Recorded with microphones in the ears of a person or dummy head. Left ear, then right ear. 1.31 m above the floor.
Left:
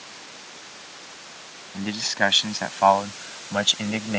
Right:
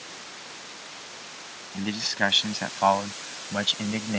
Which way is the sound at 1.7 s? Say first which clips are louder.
Left 3 dB; 10° left (ahead or behind).